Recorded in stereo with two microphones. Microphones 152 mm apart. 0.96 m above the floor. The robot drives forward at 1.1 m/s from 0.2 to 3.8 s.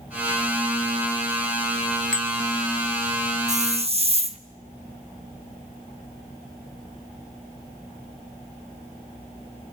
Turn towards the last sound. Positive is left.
turn(degrees=-40)  # may be behind; listen again after turning